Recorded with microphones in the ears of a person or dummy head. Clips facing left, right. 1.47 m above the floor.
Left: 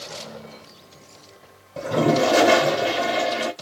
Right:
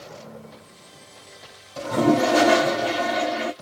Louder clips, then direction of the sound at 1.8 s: Even; 30° left (ahead or behind).